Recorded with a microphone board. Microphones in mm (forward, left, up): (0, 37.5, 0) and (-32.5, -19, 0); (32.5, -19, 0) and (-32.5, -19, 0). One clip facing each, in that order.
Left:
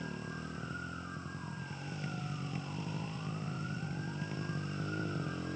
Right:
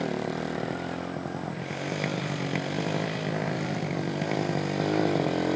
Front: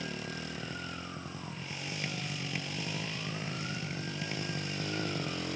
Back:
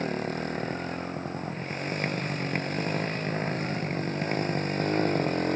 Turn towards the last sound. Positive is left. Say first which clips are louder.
# right 13 dB, back 9 dB
turn(degrees=-135)